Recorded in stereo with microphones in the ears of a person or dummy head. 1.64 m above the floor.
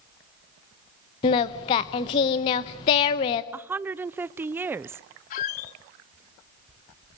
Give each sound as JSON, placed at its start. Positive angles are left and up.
{"t": 1.2, "sound": "singing", "side_deg": 25, "distance_m": 0.8}
{"t": 3.5, "sound": "a woman speaking", "side_deg": -15, "distance_m": 0.5}
{"t": 5.3, "sound": "a squeak", "side_deg": 45, "distance_m": 1.2}